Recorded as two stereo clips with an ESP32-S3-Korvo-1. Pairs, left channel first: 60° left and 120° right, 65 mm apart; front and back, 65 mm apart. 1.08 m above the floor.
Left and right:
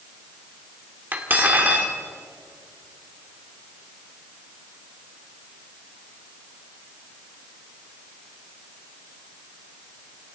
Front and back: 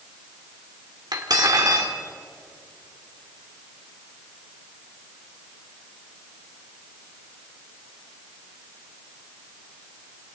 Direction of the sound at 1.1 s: Straight behind.